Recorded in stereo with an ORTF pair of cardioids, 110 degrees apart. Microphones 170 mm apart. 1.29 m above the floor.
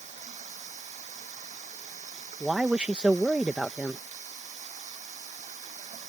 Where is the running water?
45° right.